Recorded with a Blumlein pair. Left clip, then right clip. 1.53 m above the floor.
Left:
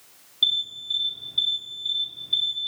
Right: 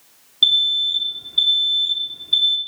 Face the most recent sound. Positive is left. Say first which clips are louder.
# right 8 dB
turn(degrees=-20)